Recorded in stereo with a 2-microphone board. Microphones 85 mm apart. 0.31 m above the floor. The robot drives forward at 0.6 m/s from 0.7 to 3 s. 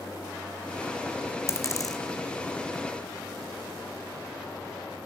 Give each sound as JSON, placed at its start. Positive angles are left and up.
{"t": 1.5, "sound": "a dropped coin", "side_deg": 35, "distance_m": 1.2}